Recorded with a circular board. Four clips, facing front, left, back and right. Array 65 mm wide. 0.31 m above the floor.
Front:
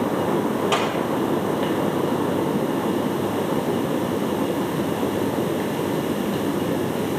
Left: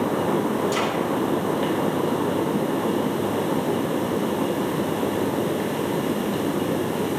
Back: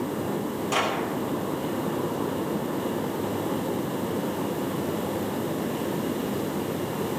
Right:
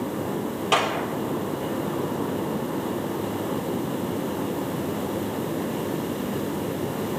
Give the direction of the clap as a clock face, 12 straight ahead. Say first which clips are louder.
Even, front 4 dB; 2 o'clock.